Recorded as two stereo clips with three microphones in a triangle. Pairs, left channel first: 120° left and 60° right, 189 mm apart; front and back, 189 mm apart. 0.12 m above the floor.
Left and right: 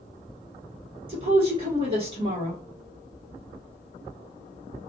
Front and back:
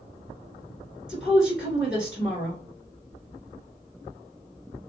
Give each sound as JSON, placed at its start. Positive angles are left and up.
{"t": 1.1, "sound": "a woman speaking", "azimuth_deg": -95, "distance_m": 1.3}